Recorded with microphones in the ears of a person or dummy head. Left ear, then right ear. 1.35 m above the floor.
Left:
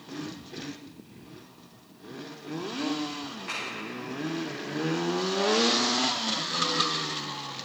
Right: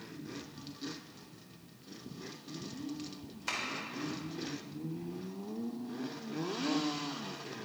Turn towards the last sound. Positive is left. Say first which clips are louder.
# left 1 dB
turn(degrees=-85)